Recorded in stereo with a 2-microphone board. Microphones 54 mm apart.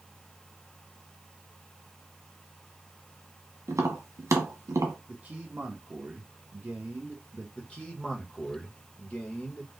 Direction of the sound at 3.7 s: 75° right (ahead or behind).